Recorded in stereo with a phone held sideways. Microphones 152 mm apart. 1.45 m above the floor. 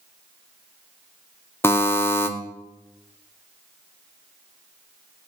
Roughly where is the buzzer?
Centre.